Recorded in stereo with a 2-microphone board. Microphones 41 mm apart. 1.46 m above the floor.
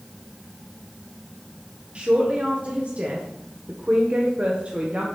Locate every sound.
1.9 s a man speaking: 30° right (ahead or behind), 1.4 m